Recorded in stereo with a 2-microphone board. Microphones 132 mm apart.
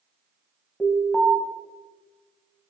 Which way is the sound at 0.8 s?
10° left (ahead or behind).